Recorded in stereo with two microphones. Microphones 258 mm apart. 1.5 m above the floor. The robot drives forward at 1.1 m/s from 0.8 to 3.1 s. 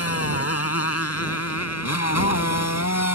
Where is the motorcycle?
60° left (ahead or behind); by 3.2 s 80° left.